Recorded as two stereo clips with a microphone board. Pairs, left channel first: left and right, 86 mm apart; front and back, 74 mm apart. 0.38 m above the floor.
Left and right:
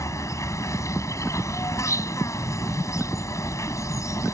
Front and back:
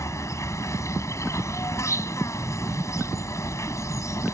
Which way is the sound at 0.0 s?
45° left.